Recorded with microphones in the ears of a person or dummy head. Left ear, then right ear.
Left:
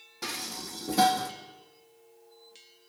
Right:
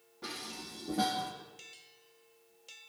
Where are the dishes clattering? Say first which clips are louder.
Left 6 dB; 70° left (ahead or behind), 2.5 m.